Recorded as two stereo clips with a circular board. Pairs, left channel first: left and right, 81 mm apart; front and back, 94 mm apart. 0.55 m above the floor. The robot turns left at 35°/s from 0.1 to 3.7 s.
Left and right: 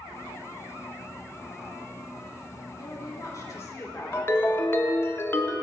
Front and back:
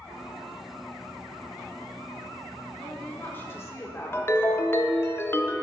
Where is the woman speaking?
80° left, 1.6 m; by 4.3 s 50° left, 1.6 m.